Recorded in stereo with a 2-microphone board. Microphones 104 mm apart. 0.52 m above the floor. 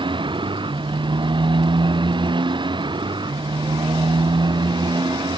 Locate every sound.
0.0 s a motorcycle: 50° right (ahead or behind); by 5.4 s 45° right (ahead or behind)